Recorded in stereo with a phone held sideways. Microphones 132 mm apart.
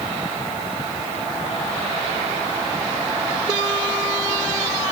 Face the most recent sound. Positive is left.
No sound to turn to.